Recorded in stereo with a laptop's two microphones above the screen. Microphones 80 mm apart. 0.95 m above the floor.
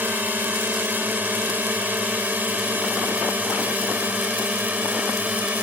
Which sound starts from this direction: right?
A drone, at 0.0 s.